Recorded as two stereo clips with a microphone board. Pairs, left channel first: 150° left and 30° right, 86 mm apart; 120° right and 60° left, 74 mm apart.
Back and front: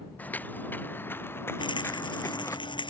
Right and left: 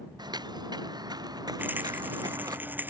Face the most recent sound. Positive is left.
turn(degrees=125)